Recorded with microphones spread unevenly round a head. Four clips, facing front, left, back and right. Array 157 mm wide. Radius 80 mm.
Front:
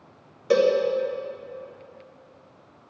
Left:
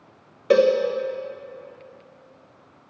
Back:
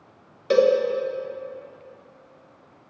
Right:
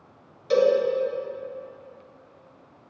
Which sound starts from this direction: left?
A cowbell, at 0.5 s.